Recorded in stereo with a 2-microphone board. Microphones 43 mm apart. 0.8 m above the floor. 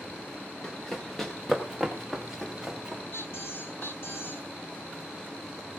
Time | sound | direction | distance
0.6 | running footsteps | 10° left (ahead or behind) | 4.5 m
3.1 | a squeak | 55° left (ahead or behind) | 3.5 m